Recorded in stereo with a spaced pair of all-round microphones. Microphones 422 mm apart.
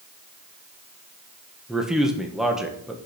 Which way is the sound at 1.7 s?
Centre (ahead or behind).